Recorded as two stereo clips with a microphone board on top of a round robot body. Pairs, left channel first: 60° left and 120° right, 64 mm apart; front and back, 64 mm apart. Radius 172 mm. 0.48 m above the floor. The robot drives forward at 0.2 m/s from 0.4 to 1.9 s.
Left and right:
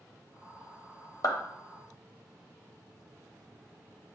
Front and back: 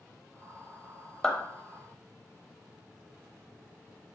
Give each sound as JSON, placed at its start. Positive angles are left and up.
{"t": 1.2, "sound": "a clap", "azimuth_deg": 85, "distance_m": 0.9}